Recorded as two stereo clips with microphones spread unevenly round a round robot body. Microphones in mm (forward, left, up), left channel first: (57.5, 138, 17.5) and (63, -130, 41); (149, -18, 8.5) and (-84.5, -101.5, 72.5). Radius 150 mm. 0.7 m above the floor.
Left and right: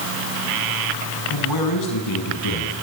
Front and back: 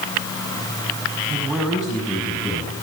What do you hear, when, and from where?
1.3 s a man speaking: 110° left, 6.5 m; by 2.8 s 105° left, 7.5 m